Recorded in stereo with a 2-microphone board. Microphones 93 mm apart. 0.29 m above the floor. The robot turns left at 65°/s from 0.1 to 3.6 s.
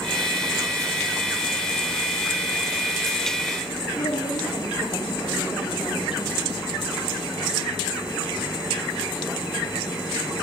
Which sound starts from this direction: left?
A woman speaking, at 4.0 s.